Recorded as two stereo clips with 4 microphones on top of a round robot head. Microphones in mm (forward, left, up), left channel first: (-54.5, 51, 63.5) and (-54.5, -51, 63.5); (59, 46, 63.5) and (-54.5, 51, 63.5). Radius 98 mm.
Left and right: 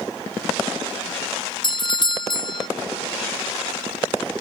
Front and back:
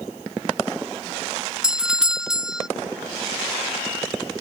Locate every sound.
1.6 s a doorbell: 95° left